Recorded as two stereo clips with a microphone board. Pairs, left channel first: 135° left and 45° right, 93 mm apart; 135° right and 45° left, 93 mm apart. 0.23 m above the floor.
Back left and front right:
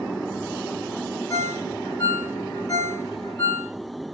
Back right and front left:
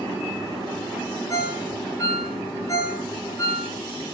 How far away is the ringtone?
About 1.0 m.